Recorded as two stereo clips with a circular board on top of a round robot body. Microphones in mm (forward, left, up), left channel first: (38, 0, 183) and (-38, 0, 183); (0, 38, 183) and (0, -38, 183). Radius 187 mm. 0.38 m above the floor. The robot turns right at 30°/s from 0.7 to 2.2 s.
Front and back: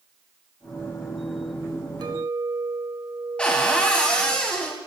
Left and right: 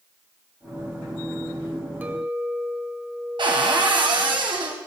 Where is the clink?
155° right, 1.4 m; by 4.4 s 150° right, 1.4 m.